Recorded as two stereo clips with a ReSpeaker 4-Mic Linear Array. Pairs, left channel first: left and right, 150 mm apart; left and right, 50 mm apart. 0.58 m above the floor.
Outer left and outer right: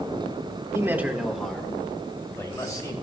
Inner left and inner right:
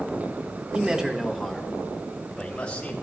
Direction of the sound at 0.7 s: 20° right (ahead or behind).